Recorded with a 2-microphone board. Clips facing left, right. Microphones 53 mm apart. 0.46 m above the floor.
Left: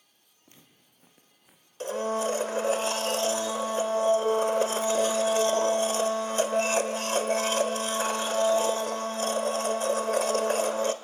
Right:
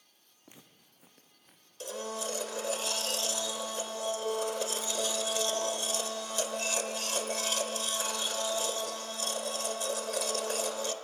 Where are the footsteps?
20° right (ahead or behind), 2 m; by 1.7 s 15° left (ahead or behind), 2 m.